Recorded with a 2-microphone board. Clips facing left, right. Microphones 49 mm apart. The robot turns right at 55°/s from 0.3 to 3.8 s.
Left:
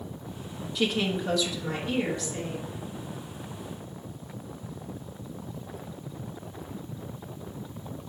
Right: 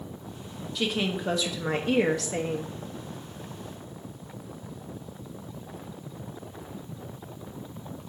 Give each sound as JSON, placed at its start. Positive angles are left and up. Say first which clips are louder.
{"t": 0.8, "sound": "a woman speaking", "louder": "left 1 dB", "azimuth_deg": 175, "distance_m": 0.9}